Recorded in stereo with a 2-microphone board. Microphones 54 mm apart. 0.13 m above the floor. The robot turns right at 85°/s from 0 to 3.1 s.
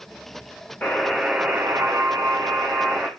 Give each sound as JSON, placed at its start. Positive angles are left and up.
{"t": 0.8, "sound": "a buzzer", "azimuth_deg": 150, "distance_m": 2.5}